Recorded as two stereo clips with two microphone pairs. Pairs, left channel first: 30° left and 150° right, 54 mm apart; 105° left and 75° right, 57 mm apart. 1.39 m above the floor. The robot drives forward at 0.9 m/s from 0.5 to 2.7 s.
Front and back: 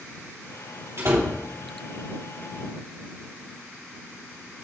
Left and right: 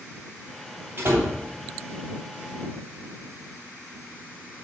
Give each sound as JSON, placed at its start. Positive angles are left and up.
{"t": 1.0, "sound": "a door slam", "azimuth_deg": -125, "distance_m": 3.0}